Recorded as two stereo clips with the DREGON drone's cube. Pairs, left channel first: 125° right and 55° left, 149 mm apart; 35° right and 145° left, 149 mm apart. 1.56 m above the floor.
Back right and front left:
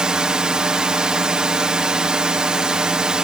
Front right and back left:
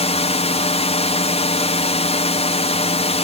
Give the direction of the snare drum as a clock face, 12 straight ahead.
No snare drum in this recording.